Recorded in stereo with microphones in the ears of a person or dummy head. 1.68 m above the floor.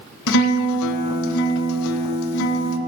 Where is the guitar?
80° left, 0.6 m.